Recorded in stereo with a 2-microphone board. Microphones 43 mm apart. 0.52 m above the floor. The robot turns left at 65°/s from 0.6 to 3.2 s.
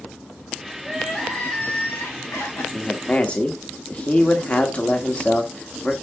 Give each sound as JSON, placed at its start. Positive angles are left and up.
{"t": 0.8, "sound": "crying", "azimuth_deg": -170, "distance_m": 2.5}
{"t": 2.7, "sound": "a man speaking", "side_deg": 30, "distance_m": 1.2}